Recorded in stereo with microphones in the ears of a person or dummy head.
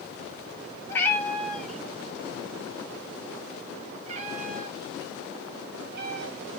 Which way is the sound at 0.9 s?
10° left (ahead or behind).